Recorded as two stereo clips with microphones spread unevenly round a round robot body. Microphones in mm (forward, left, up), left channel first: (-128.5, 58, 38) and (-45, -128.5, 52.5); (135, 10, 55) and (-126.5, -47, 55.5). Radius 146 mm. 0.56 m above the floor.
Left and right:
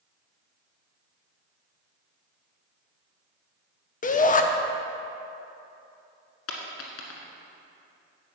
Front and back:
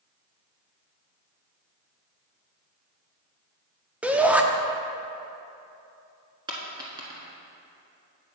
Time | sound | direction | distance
4.0 | a shout | 110° left | 0.8 m
6.5 | a dropped coin | 115° left | 1.5 m